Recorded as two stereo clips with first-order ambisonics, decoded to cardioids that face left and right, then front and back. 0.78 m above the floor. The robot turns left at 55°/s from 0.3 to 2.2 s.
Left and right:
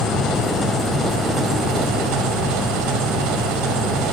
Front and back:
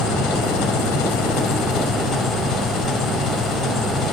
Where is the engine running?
35° left, 2 m; by 4.1 s 70° right, 2 m.